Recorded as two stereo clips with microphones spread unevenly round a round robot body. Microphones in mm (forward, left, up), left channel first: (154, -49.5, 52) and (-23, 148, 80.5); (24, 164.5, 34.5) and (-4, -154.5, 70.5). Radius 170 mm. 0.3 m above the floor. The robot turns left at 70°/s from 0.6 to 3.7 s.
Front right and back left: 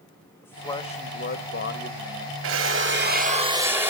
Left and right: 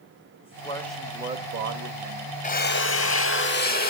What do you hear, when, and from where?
0.4 s a man speaking: 25° left, 1.8 m; by 2.3 s 95° right, 1.8 m
2.4 s a drill: 135° left, 2.0 m; by 3.9 s 45° left, 2.0 m